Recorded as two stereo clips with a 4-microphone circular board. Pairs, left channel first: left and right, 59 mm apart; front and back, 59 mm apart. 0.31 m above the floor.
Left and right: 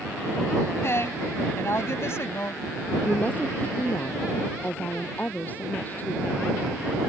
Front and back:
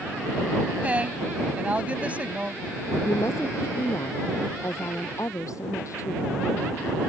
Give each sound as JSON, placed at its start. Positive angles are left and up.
{"t": 0.8, "sound": "a woman speaking", "azimuth_deg": 120}
{"t": 3.0, "sound": "a woman speaking", "azimuth_deg": 30}